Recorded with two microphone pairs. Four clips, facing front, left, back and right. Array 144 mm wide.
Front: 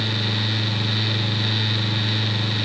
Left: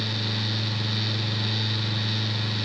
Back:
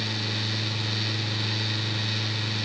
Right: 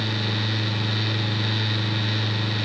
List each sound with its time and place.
Only background noise.